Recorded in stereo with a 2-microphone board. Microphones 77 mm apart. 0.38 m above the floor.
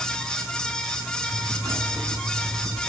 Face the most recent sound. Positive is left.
turn(degrees=-45)  # may be behind; listen again after turning